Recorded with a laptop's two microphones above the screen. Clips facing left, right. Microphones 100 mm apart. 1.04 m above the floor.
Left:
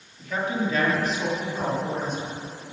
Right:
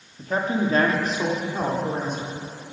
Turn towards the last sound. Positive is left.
turn(degrees=-50)  # may be behind; listen again after turning